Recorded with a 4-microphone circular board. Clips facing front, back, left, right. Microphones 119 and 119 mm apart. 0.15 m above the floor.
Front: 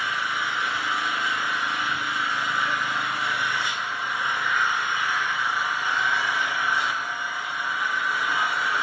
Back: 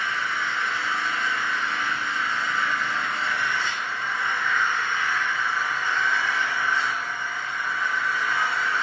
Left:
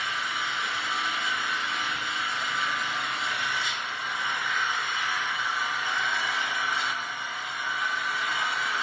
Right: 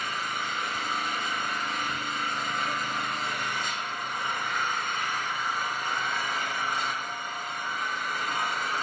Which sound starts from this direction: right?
An engine running, at 0.0 s.